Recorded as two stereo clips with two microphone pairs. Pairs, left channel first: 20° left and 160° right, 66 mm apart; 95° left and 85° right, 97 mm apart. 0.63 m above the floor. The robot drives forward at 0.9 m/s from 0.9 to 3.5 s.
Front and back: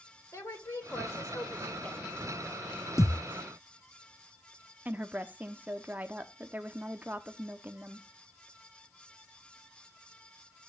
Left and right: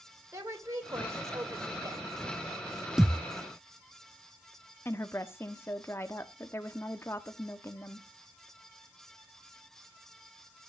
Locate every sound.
0.3 s a woman speaking: 25° right, 2 m; by 2.1 s 50° right, 1.2 m
3.0 s a thud: straight ahead, 0.9 m; by 3.2 s 5° right, 0.7 m
4.8 s a woman speaking: 150° left, 1.0 m